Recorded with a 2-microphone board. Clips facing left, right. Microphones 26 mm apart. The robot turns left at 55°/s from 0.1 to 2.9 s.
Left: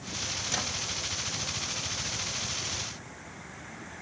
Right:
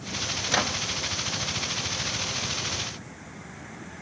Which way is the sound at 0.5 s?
40° right (ahead or behind).